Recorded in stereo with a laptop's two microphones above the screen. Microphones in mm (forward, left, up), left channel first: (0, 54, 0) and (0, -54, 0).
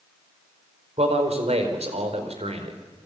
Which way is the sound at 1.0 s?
80° right.